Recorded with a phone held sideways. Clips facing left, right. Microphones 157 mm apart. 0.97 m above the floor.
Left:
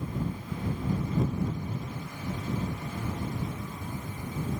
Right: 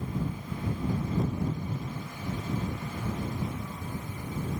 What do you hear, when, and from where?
Only background noise.